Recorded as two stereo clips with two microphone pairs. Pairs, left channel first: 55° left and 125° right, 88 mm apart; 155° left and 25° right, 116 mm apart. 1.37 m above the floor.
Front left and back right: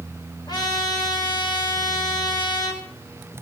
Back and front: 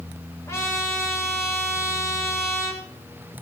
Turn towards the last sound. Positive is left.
turn(degrees=90)